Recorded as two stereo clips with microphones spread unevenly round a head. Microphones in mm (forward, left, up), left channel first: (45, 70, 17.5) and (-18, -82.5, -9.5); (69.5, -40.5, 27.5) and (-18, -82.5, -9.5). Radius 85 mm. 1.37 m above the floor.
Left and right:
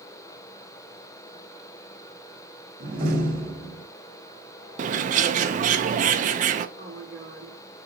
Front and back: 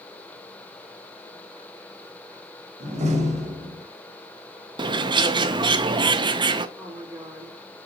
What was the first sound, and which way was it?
A door slam, 155° right.